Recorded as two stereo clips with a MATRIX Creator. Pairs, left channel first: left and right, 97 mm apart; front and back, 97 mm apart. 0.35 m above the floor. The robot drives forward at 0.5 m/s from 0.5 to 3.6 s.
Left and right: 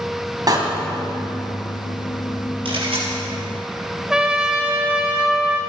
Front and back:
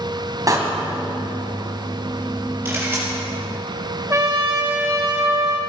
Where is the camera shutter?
110° right, 5.5 m.